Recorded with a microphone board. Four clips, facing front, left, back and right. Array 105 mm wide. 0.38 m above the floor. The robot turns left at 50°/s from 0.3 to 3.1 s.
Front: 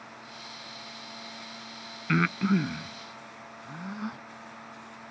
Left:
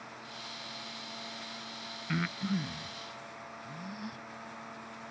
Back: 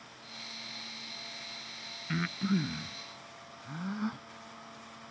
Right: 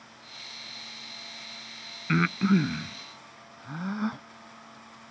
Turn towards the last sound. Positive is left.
turn(degrees=-85)